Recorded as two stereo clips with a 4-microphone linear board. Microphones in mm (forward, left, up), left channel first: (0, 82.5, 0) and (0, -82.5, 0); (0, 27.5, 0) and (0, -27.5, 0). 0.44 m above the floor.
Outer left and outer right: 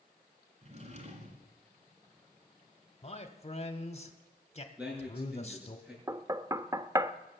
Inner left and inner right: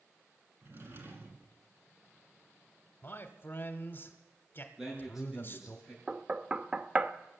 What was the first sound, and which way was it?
A drawer, 40° right (ahead or behind).